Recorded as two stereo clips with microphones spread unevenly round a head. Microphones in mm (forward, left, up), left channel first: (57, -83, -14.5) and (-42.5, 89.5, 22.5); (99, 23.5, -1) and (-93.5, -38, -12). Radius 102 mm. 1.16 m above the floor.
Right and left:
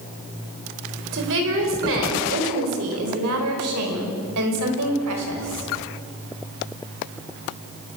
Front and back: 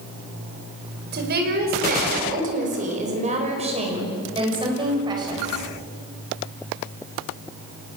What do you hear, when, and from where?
1.1 s a woman speaking: 155° left, 5.5 m; by 5.7 s 125° left, 6.5 m